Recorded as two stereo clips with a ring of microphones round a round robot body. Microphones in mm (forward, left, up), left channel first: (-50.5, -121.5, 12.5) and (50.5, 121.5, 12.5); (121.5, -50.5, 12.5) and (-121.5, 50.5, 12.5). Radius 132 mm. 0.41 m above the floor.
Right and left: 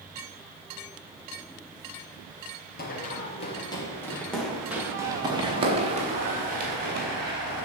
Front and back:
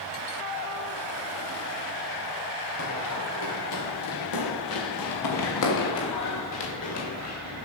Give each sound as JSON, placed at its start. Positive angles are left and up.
{"t": 2.8, "sound": "running footsteps", "azimuth_deg": -55, "distance_m": 4.0}